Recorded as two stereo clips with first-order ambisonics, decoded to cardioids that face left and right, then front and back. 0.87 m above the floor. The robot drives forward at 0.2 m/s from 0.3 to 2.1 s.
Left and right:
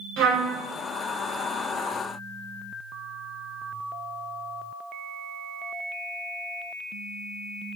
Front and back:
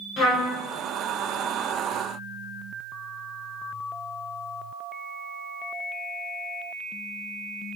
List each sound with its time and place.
0.2 s a trumpet: 60° right, 1.5 m